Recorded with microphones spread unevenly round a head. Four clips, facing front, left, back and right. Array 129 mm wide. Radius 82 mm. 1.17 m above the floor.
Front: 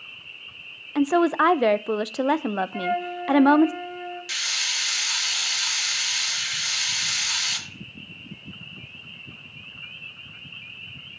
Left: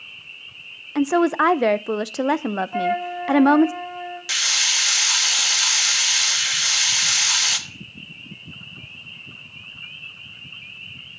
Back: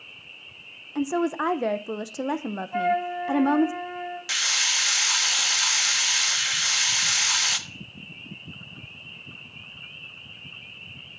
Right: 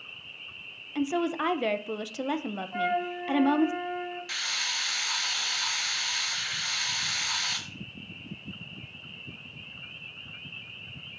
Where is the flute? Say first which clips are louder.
Left 2 dB, back 2 dB; 125° left, 3.5 m.